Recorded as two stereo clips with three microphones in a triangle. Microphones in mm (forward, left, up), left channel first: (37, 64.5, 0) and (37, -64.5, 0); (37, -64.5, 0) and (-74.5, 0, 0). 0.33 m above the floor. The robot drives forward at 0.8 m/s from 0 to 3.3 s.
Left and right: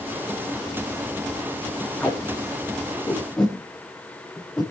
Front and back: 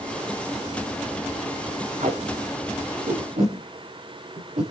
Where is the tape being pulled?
170° left, 5.5 m; by 4.7 s 175° left, 6.5 m.